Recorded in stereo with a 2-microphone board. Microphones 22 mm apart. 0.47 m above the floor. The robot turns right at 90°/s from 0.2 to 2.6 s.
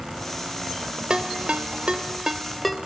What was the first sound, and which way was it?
A ringtone, 40° right (ahead or behind).